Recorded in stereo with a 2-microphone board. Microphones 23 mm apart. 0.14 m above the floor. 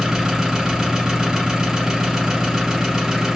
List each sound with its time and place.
0.0 s an engine running: 20° right (ahead or behind), 2 m